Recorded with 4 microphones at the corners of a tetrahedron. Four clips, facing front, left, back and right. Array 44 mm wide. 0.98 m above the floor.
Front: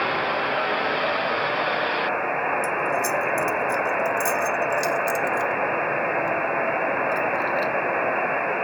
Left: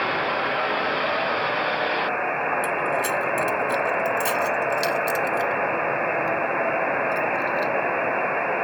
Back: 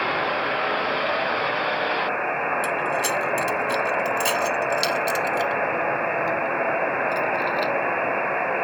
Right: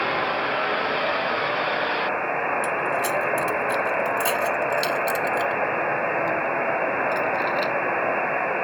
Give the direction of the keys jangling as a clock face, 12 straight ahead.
6 o'clock.